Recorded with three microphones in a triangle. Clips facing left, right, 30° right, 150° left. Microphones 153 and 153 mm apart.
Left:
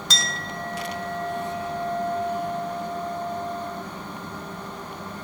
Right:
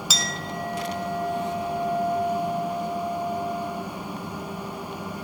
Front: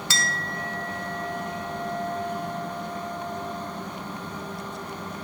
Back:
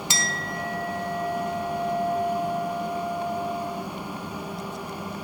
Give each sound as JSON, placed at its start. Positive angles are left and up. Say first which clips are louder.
{"t": 0.1, "sound": "a clink", "louder": "right 1 dB, even", "azimuth_deg": -165, "distance_m": 0.6}